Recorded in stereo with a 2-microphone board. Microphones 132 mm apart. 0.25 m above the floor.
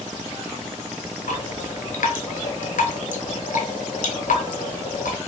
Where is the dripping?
75° left (ahead or behind), 0.6 m.